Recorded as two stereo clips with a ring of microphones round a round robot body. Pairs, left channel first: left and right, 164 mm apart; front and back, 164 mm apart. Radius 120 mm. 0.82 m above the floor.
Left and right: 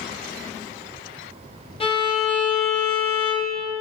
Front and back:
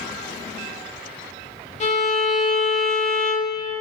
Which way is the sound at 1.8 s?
40° left.